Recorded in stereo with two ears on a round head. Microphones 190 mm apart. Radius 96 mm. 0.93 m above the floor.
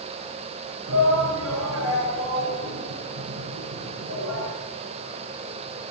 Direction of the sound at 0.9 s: 75° right (ahead or behind).